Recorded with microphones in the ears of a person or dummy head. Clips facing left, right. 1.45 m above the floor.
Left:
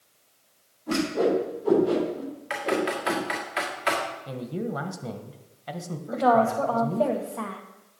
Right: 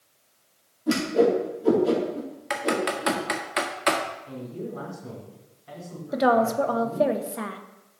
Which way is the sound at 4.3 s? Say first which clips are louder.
Left 3 dB; 80° left.